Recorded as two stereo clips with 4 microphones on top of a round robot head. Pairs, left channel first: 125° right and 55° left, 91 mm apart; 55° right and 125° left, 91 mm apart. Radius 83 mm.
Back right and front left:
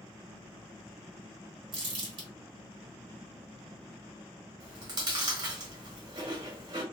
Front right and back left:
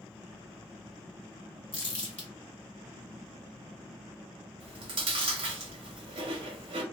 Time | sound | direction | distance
1.7 | crumpling | 20° left | 1.1 m
4.6 | chewing | 100° left | 0.9 m